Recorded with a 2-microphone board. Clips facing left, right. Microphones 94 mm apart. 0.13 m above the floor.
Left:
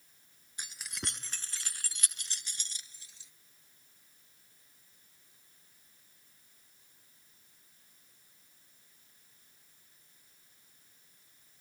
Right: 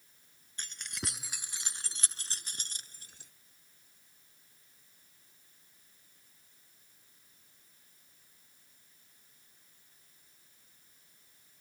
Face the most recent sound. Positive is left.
turn(degrees=-55)  # may be behind; listen again after turning